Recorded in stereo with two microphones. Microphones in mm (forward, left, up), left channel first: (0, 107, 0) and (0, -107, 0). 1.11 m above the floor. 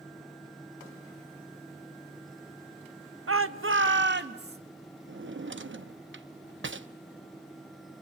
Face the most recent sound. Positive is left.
turn(degrees=-60)  # may be behind; listen again after turning